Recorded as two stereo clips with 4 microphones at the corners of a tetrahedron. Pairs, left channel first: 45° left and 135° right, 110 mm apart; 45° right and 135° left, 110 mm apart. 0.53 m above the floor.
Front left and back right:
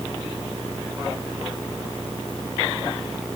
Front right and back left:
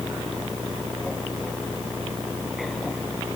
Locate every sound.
Only background noise.